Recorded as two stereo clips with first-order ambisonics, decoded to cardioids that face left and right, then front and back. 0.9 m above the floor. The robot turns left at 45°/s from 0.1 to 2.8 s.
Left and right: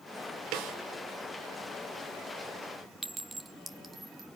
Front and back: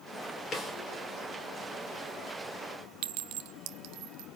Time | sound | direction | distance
0.5 | a snare drum | 65° right | 2.5 m
3.0 | a clink | 165° right | 1.0 m